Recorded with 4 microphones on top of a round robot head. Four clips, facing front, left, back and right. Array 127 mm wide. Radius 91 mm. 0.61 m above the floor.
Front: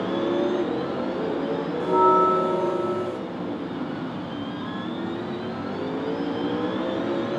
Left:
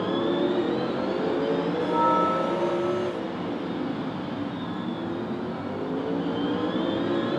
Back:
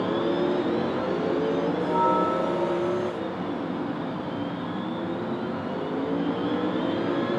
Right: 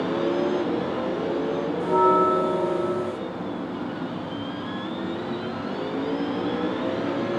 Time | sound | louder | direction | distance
1.8 | a bell | right 5 dB, front 7 dB | 55° right | 2.5 m